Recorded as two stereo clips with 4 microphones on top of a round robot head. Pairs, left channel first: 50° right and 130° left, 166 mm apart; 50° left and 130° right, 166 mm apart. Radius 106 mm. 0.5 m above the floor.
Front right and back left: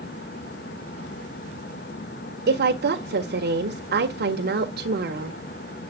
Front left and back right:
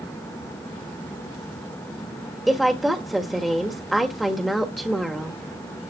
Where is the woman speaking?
140° left, 1.5 m.